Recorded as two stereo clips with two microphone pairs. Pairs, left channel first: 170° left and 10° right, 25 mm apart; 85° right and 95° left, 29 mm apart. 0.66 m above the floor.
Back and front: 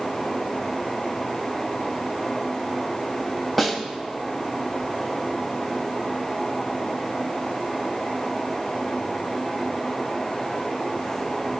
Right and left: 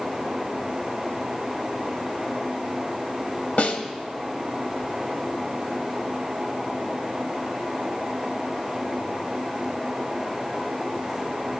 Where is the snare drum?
95° right, 0.9 m.